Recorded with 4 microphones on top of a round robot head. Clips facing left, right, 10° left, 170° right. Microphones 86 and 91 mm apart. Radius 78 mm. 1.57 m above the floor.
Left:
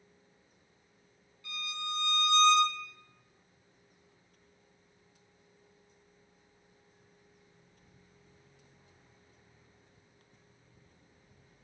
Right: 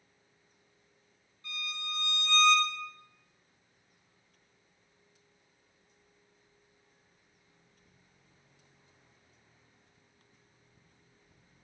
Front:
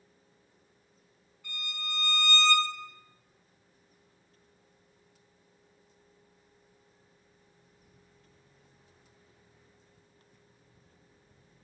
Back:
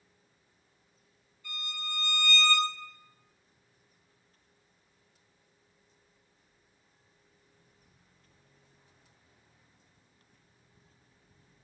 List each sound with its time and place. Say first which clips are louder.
1.4 s a violin: left 2 dB, even; 35° right, 1.4 m